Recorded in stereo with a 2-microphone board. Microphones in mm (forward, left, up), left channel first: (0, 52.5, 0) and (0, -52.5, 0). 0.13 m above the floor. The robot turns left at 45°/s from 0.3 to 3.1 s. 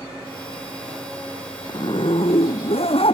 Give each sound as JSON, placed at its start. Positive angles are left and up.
{"t": 1.7, "sound": "a zipper", "azimuth_deg": 135}